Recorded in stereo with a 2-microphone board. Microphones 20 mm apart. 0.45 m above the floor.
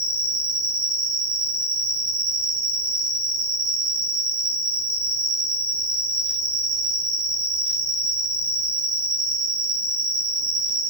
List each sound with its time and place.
0.0 s an insect: 55° right (ahead or behind), 0.7 m